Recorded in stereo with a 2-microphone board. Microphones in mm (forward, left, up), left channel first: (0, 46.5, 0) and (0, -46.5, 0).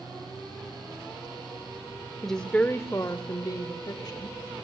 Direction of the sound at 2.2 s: 5° left (ahead or behind).